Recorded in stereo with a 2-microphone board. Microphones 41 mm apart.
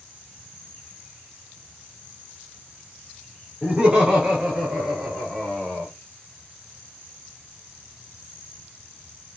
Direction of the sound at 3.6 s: 10° right (ahead or behind).